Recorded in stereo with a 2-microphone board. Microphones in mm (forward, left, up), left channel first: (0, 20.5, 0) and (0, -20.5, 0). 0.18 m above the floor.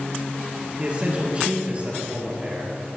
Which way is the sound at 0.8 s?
30° right (ahead or behind).